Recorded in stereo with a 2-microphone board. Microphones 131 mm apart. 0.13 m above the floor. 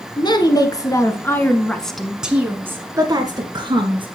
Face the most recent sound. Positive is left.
turn(degrees=-40)  # may be behind; listen again after turning